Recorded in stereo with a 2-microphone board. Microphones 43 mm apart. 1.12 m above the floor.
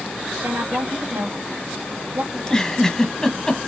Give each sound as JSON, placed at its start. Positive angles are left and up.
{"t": 0.4, "sound": "a woman speaking", "side_deg": -75, "distance_m": 2.5}
{"t": 2.3, "sound": "a giggle", "side_deg": 15, "distance_m": 1.2}